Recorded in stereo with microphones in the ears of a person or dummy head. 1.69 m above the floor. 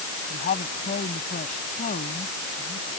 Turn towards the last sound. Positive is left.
turn(degrees=45)  # may be behind; listen again after turning